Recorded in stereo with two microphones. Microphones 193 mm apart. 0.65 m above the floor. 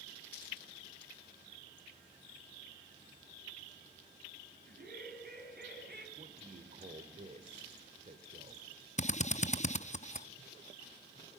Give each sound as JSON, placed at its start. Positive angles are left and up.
{"t": 4.7, "sound": "laughter", "side_deg": -50, "distance_m": 5.0}
{"t": 6.2, "sound": "a man speaking", "side_deg": -40, "distance_m": 2.0}
{"t": 9.0, "sound": "a drill", "side_deg": 35, "distance_m": 0.5}